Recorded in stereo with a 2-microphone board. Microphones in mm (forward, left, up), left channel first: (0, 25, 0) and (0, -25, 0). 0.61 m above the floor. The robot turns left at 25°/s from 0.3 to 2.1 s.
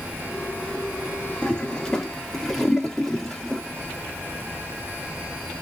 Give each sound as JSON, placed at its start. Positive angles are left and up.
{"t": 1.4, "sound": "a toilet flushing", "side_deg": 20, "distance_m": 1.2}